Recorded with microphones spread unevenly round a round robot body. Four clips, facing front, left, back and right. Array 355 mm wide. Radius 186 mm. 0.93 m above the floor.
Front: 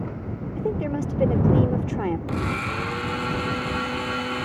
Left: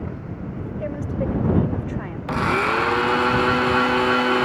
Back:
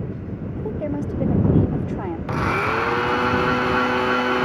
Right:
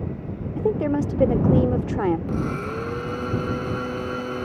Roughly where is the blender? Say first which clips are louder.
Left 6 dB, back 6 dB; left.